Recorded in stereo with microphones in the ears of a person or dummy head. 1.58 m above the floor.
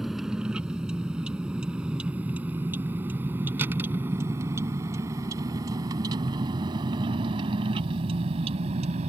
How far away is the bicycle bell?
I don't hear a bicycle bell.